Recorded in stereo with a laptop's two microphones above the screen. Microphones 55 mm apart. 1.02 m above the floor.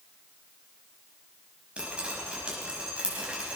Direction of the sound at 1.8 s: 20° right (ahead or behind).